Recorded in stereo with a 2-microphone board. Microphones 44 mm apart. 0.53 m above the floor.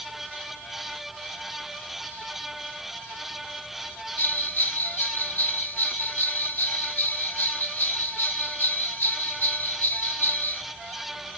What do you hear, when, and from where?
4.2 s a bell: 60° left (ahead or behind), 1.4 m